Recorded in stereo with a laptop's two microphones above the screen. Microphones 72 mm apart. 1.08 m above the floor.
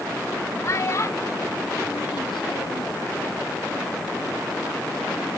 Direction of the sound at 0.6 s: 40° left (ahead or behind).